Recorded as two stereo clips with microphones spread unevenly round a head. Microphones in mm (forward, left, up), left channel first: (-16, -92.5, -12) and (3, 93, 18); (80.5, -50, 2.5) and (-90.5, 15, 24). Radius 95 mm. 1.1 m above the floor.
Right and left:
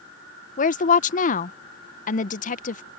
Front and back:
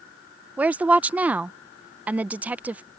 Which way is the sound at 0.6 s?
115° right.